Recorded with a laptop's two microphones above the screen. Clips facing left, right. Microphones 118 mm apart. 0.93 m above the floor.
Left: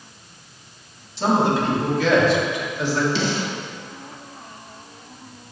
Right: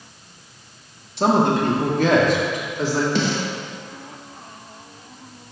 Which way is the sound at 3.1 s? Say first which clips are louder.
Right 2 dB; 50° right (ahead or behind).